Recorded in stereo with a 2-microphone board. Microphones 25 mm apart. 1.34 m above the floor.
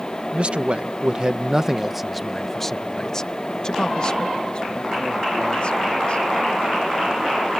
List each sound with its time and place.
0.3 s a man speaking: 55° right (ahead or behind); by 6.3 s 50° left (ahead or behind)